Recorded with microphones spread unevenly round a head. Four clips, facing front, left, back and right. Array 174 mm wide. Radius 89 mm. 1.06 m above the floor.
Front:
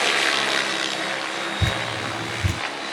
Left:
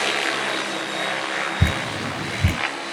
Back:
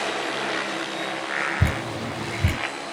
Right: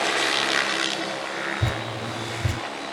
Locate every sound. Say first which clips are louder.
1.6 s dripping: left 3 dB, front 1 dB; 105° left, 5 m